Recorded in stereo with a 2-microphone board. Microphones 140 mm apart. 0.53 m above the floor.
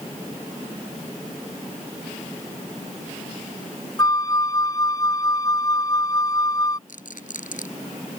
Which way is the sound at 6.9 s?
70° left (ahead or behind).